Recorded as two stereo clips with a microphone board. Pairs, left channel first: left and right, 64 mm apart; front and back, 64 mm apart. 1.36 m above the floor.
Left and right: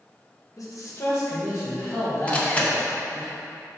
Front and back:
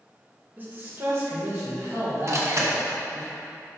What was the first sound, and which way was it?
A man speaking, 120° left.